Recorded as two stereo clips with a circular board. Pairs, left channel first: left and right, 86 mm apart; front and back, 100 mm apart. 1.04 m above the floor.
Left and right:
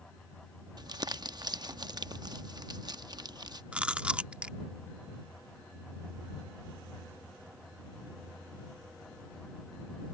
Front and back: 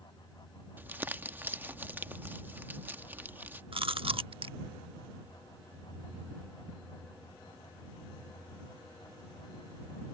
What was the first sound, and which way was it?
Crumpling, 110° right.